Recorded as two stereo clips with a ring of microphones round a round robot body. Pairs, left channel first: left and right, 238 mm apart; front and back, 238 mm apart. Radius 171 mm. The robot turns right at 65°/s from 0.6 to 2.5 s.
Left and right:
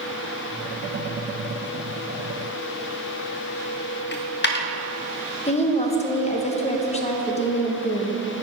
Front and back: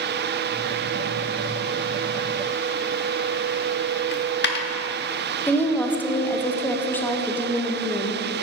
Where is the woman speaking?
75° left, 0.7 m.